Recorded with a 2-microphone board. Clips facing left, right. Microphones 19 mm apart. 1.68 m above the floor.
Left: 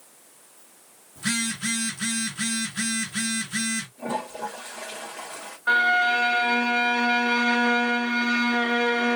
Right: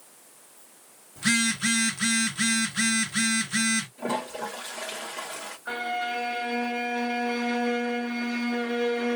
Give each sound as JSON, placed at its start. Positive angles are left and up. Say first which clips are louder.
{"t": 1.2, "sound": "a phone buzzing", "louder": "right 3 dB", "side_deg": -30, "distance_m": 1.5}
{"t": 4.0, "sound": "a toilet flushing", "louder": "even", "side_deg": -55, "distance_m": 2.0}
{"t": 5.7, "sound": "a violin", "louder": "left 10 dB", "side_deg": 40, "distance_m": 1.2}